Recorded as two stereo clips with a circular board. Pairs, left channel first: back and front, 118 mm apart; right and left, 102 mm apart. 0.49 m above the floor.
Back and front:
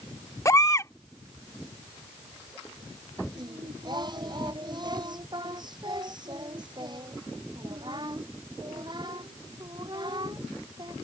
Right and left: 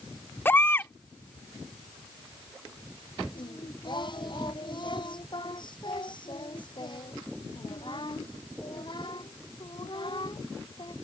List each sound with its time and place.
0.5 s a baby crying: 140° right
3.4 s singing: 50° right